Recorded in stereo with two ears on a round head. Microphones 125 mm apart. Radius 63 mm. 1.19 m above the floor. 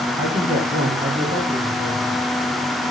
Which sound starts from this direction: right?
A man speaking, at 0.2 s.